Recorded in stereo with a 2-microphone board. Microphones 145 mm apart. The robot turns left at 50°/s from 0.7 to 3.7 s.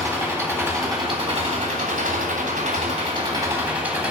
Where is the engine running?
15° right, 3 m; by 4.1 s 165° right, 3 m.